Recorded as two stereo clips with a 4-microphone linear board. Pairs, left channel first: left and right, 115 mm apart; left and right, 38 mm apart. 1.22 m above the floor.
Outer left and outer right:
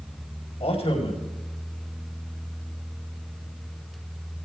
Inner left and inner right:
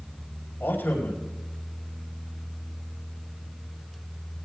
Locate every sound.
0.6 s a man speaking: 65° left (ahead or behind), 4.5 m